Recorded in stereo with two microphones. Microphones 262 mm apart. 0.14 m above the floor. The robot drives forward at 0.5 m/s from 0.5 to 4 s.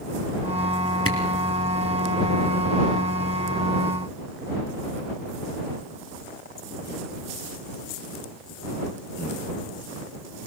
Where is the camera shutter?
55° left (ahead or behind), 3 m.